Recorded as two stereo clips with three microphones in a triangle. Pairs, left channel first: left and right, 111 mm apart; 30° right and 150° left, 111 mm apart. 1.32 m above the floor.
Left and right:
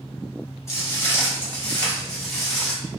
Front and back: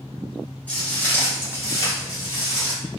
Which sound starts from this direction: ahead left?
Footsteps, at 0.7 s.